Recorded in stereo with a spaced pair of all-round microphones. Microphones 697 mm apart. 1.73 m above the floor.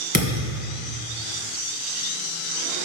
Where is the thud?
15° left (ahead or behind), 2.5 m.